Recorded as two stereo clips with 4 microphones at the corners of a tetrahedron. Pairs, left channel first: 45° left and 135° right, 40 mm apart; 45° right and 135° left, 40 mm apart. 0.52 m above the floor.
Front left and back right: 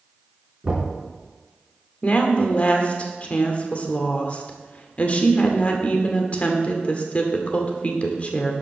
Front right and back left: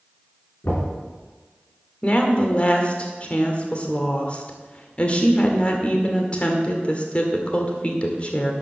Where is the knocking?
70° right, 4 m.